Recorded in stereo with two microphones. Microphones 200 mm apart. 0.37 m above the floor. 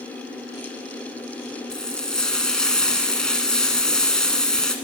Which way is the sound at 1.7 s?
5° left (ahead or behind).